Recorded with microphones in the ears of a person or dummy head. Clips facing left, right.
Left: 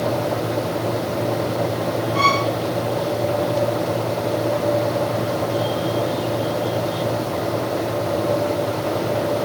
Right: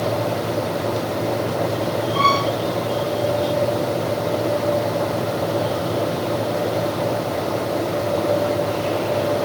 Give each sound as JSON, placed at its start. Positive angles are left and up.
{"t": 2.1, "sound": "a violin", "side_deg": 30, "distance_m": 3.5}